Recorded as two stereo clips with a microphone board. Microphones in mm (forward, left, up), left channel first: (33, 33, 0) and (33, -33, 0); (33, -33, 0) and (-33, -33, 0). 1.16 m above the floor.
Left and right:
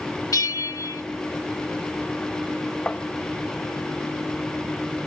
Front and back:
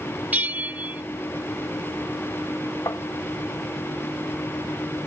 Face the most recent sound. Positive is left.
turn(degrees=20)